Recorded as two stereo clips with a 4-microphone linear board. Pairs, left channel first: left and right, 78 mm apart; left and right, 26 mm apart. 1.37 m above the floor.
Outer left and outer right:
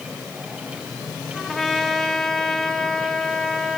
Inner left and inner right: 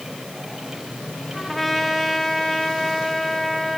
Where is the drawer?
No drawer in this recording.